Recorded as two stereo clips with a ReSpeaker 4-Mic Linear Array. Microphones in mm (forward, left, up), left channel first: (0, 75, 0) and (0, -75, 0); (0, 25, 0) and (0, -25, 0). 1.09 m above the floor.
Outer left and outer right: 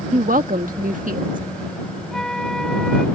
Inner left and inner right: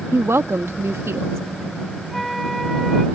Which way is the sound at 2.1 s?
5° left (ahead or behind).